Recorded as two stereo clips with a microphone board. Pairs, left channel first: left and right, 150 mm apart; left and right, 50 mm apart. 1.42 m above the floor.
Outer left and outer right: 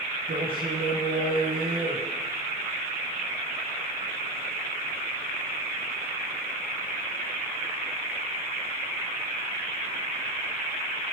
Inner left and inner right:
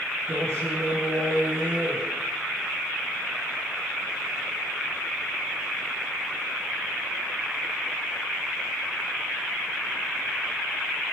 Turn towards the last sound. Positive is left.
turn(degrees=-85)